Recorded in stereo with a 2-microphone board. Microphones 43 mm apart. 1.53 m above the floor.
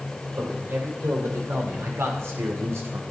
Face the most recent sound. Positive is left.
turn(degrees=-85)